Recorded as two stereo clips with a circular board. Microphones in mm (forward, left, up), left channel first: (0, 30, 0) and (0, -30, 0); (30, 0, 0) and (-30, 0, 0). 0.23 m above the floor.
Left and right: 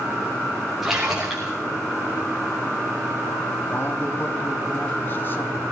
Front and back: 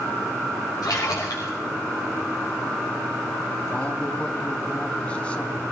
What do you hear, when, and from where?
0.8 s a splash: 5° right, 4.5 m
3.7 s a man speaking: 60° left, 1.3 m